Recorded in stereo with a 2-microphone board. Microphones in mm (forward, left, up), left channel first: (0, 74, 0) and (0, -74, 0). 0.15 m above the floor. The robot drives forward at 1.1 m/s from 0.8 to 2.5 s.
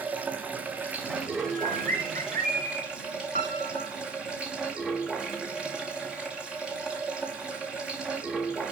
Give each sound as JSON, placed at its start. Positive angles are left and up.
{"t": 0.0, "sound": "running water", "side_deg": -10, "distance_m": 3.0}
{"t": 1.5, "sound": "a bird", "side_deg": -80, "distance_m": 5.0}
{"t": 3.4, "sound": "a piano", "side_deg": -80, "distance_m": 3.5}